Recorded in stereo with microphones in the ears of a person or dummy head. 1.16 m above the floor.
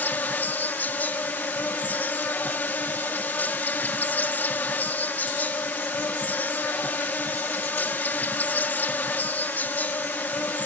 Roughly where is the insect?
Centre.